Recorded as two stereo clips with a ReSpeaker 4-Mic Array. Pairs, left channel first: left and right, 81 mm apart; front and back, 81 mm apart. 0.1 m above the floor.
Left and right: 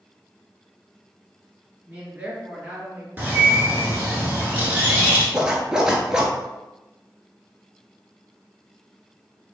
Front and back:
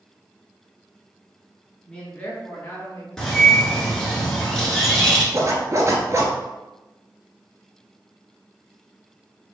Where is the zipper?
165° right, 0.7 m.